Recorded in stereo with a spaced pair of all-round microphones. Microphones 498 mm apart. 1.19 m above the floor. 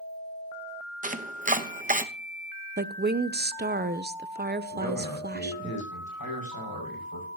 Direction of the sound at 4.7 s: 45° left (ahead or behind).